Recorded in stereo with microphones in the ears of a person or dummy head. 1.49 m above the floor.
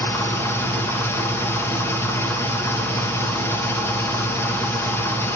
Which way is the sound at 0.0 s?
10° left (ahead or behind).